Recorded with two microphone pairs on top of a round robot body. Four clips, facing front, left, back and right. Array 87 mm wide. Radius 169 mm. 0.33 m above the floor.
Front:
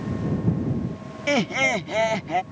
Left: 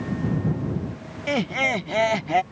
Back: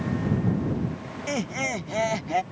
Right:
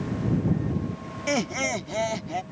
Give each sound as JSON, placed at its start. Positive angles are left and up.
{"t": 1.3, "sound": "laughter", "azimuth_deg": -20}